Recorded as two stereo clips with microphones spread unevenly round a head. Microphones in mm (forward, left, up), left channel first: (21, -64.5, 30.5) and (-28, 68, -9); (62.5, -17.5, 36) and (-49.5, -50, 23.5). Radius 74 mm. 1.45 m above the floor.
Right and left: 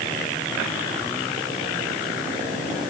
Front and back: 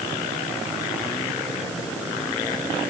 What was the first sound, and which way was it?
Only background noise.